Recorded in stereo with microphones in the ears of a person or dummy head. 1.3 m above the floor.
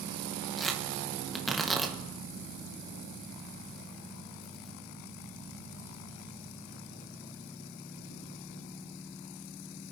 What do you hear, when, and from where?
0.6 s tearing paper: centre (ahead or behind), 1.4 m